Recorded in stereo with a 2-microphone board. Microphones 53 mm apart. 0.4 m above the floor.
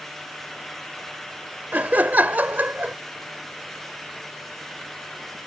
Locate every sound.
1.7 s laughter: 35° right (ahead or behind)